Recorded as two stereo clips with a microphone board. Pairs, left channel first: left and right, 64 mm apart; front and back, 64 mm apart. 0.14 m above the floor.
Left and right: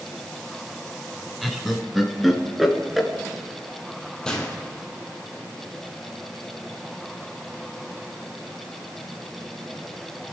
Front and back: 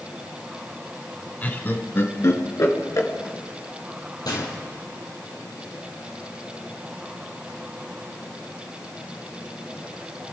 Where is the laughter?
5° left, 1.7 m; by 3.1 s 5° right, 2.5 m.